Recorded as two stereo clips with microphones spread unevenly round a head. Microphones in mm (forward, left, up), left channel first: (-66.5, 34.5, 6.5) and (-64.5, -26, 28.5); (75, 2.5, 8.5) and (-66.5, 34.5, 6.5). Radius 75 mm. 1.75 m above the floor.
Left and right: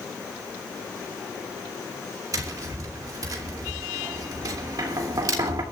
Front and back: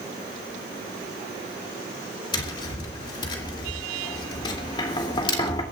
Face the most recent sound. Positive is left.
turn(degrees=-75)